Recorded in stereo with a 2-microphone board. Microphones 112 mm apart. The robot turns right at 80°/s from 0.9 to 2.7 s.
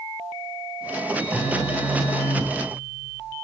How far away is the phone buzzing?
About 1.7 m.